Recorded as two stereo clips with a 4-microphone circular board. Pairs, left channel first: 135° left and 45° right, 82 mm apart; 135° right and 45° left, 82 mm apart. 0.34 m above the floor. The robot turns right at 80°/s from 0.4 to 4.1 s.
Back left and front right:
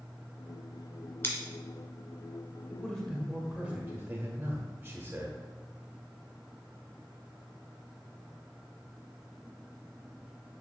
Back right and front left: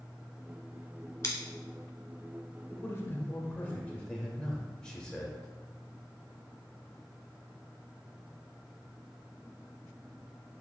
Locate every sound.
1.2 s scissors: 170° right, 0.9 m; by 1.4 s 160° right, 0.9 m
2.7 s a man speaking: 175° right, 0.9 m; by 5.4 s 65° right, 0.9 m